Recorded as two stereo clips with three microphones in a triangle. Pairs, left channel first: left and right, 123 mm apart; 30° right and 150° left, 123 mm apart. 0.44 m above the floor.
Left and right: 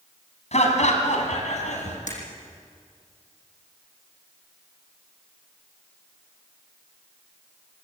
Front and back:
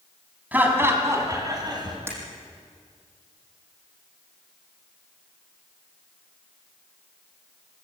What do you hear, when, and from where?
0.5 s laughter: 75° left, 4 m; by 2.0 s 100° left, 4.5 m
2.1 s breaking glass: 80° left, 6 m